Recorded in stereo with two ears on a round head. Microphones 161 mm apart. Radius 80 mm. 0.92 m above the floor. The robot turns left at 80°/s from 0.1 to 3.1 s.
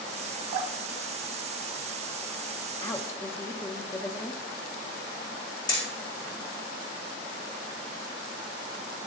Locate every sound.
0.5 s dripping: 40° right (ahead or behind), 0.6 m; by 2.2 s 5° right (ahead or behind), 0.6 m
2.8 s a woman speaking: 20° left (ahead or behind), 0.6 m; by 4.4 s 15° left (ahead or behind), 0.6 m
5.7 s hammering: 25° left (ahead or behind), 2.5 m